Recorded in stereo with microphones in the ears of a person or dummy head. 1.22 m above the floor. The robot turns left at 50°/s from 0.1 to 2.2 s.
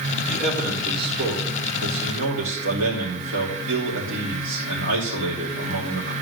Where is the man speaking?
Straight ahead, 3 m; by 6.1 s 95° right, 3 m.